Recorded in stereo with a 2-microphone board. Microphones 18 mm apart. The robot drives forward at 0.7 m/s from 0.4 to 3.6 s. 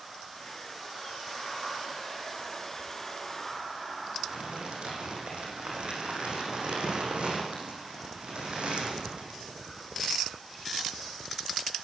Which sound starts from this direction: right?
Crumpling, at 4.2 s.